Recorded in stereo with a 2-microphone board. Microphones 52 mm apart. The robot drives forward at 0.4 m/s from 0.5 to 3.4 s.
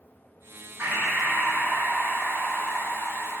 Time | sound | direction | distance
0.8 | breathing | 55° right (ahead or behind) | 0.6 m